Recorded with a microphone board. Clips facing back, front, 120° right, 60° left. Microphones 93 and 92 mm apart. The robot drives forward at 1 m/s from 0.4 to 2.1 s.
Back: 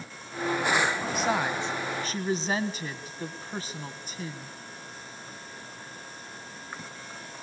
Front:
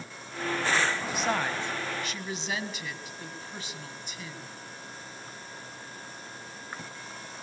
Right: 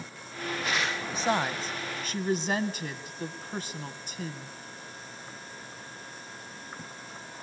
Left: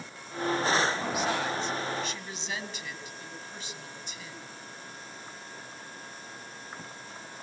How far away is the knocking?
I don't hear knocking.